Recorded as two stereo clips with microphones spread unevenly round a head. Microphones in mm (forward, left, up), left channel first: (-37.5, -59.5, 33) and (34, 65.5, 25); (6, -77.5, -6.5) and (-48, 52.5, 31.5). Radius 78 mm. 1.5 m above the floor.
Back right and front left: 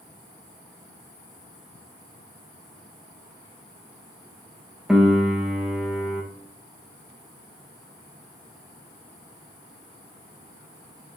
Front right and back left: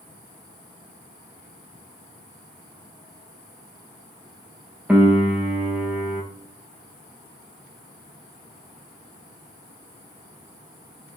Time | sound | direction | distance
4.9 | a piano | 150° left | 0.7 m